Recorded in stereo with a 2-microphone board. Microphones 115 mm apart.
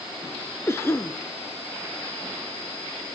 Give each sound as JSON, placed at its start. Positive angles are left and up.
{"t": 0.7, "sound": "a cough", "side_deg": 25, "distance_m": 1.1}